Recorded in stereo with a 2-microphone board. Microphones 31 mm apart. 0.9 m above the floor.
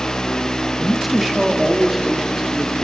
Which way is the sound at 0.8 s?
Centre (ahead or behind).